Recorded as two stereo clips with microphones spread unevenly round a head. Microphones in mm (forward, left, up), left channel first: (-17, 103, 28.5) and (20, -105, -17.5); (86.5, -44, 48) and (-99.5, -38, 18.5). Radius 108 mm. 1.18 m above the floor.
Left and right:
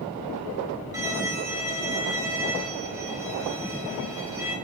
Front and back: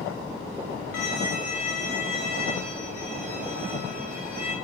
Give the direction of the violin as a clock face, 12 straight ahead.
12 o'clock.